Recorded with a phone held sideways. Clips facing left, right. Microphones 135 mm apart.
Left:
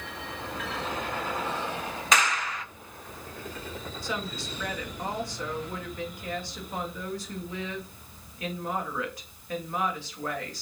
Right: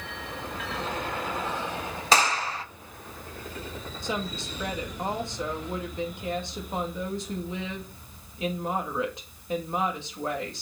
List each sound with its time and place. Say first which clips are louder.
2.1 s a clap: right 3 dB; 30° right (ahead or behind), 0.8 m
4.0 s a woman speaking: right 3 dB; 25° right (ahead or behind), 2 m